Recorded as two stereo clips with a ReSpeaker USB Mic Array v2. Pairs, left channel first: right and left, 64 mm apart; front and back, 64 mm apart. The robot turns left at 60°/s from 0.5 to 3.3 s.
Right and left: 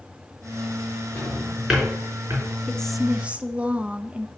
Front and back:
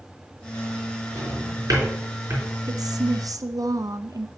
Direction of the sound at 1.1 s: 155° right.